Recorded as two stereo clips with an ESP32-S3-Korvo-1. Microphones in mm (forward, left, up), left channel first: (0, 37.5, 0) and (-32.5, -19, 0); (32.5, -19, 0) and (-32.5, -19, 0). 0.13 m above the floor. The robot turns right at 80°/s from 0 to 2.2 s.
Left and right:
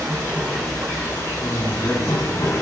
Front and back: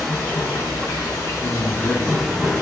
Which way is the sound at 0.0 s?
90° right.